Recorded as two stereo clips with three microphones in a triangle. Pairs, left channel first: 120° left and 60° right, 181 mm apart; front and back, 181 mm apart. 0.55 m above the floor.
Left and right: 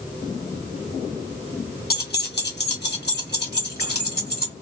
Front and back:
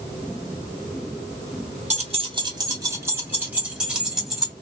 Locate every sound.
1.9 s keys jangling: 135° left, 0.9 m; by 4.5 s 90° left, 1.9 m